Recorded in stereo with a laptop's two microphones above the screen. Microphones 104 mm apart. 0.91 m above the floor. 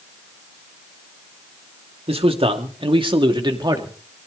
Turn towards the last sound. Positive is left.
turn(degrees=-40)  # may be behind; listen again after turning